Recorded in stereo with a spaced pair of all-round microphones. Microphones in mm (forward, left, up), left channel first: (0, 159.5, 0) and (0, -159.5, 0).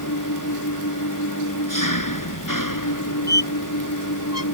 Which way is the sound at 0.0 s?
85° left.